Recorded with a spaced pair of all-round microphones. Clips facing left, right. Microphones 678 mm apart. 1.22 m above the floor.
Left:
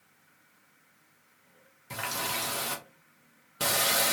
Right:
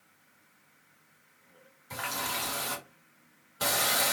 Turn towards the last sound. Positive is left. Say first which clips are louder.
# left 1 dB
turn(degrees=60)  # may be behind; listen again after turning